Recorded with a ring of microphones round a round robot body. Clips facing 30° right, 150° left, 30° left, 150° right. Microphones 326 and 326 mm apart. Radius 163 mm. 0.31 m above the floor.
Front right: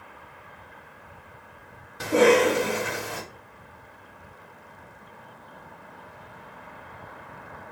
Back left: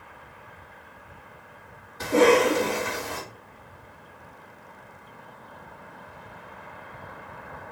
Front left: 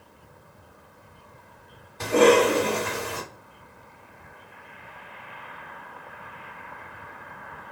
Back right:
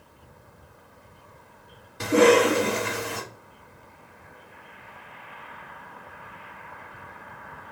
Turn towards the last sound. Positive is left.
turn(degrees=-80)